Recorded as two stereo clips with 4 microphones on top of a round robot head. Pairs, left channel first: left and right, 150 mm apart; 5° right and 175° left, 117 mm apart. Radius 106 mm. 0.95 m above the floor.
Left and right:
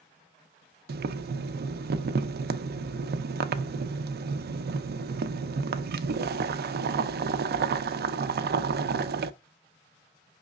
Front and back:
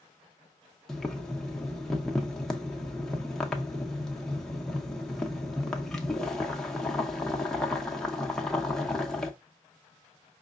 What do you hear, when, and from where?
0.9 s boiling: 90° right, 0.5 m